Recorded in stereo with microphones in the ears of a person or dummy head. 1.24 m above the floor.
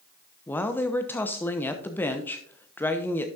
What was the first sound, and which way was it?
A woman speaking, 20° left (ahead or behind).